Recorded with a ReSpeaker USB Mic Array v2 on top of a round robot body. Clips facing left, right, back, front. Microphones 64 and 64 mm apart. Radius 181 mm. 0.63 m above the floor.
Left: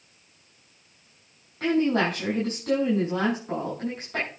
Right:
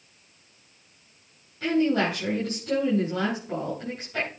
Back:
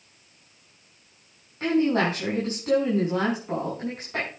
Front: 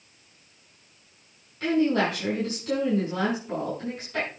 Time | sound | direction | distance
1.6 | a woman speaking | 130° left | 6 m